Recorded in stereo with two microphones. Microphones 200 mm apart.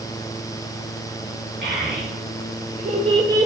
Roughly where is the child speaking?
Right.